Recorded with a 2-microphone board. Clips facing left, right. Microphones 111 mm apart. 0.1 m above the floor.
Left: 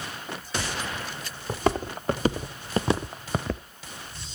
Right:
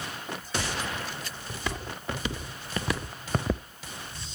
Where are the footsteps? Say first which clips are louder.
Left 11 dB; 50° left (ahead or behind), 2.5 m; by 3.6 s 20° right (ahead or behind), 0.6 m.